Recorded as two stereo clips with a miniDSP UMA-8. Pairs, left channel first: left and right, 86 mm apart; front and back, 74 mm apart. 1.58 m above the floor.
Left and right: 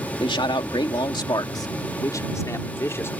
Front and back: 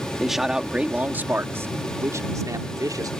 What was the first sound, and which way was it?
A man speaking, 90° left.